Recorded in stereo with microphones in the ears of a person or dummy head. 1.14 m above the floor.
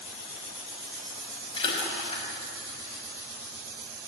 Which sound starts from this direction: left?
A splash, at 1.5 s.